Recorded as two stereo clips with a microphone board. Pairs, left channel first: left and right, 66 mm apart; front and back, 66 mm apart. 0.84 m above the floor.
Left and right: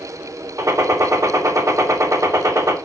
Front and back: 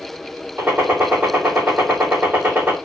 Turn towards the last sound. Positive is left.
turn(degrees=-120)